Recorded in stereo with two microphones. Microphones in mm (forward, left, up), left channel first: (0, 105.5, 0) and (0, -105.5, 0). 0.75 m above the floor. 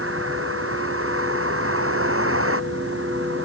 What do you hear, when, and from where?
0.0 s a vehicle: 75° right (ahead or behind)